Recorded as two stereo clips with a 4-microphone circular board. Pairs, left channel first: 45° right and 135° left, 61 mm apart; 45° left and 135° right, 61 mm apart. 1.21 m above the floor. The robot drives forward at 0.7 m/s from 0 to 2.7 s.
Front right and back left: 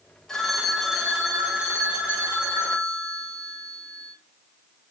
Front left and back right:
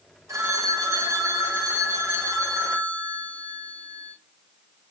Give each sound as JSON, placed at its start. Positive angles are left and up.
{"t": 0.3, "sound": "a phone ringing", "azimuth_deg": -125, "distance_m": 1.0}